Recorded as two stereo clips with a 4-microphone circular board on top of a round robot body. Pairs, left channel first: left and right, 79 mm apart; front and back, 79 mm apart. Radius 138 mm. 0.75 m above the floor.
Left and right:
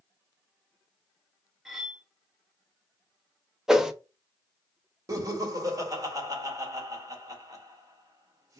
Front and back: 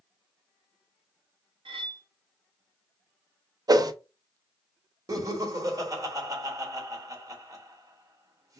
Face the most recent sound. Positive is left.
turn(degrees=-135)